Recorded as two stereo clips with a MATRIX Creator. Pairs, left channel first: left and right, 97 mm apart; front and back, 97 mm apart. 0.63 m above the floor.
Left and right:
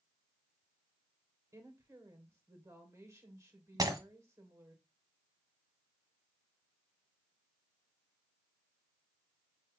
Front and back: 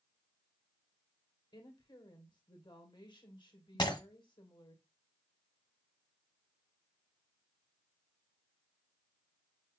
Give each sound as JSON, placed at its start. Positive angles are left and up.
{"t": 1.5, "sound": "a woman speaking", "azimuth_deg": -30, "distance_m": 2.5}
{"t": 3.8, "sound": "breaking glass", "azimuth_deg": -40, "distance_m": 1.5}